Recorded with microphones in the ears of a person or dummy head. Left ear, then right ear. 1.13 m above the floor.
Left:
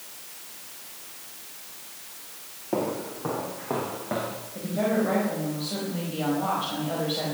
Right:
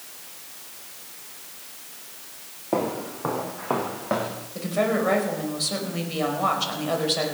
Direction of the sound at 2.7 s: 30° right (ahead or behind).